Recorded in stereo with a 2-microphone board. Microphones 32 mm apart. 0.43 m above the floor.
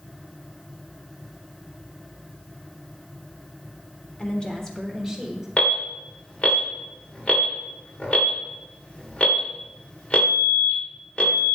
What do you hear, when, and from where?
4.2 s a woman speaking: 35° left (ahead or behind), 1.0 m; by 5.5 s 5° right (ahead or behind), 1.7 m
5.6 s an alarm: 35° left (ahead or behind), 1.7 m